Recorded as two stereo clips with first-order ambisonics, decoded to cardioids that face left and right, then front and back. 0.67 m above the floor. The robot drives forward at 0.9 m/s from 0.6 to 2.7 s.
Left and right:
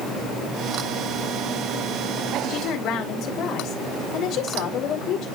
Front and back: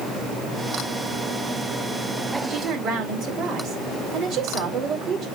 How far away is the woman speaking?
About 3 m.